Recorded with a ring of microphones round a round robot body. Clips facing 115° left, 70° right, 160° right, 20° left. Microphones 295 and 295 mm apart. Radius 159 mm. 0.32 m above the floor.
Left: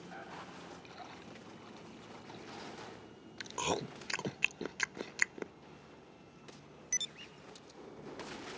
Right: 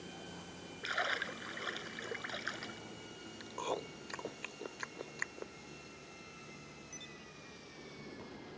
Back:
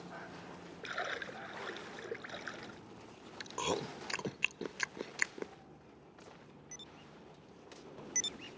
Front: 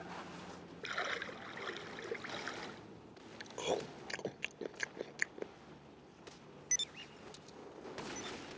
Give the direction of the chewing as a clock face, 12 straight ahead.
7 o'clock.